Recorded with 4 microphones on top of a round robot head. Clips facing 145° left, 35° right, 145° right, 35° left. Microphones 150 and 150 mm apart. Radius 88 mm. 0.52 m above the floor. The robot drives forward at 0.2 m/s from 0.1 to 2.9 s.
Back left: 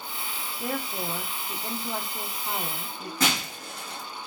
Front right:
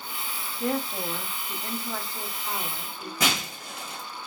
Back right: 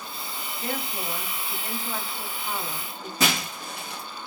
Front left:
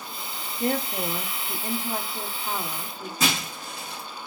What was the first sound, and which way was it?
A woman speaking, 60° left.